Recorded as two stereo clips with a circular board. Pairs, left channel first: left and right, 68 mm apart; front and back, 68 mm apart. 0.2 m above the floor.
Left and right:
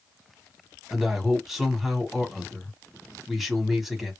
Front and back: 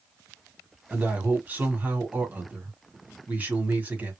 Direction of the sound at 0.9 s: 170° right.